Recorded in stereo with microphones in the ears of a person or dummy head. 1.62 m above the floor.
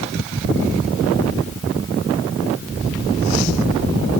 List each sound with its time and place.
Only background noise.